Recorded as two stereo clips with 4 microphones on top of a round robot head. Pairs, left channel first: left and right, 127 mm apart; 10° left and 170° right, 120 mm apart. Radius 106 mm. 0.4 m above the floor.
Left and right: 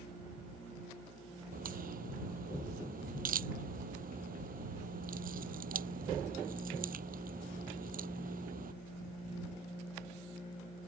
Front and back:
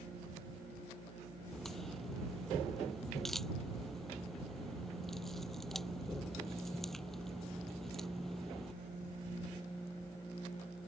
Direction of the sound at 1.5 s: 80° right.